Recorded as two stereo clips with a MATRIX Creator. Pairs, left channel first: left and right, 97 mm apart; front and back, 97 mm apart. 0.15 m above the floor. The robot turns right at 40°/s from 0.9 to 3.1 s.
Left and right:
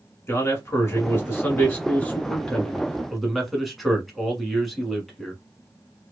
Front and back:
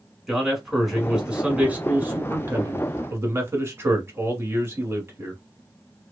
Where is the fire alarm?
I don't hear a fire alarm.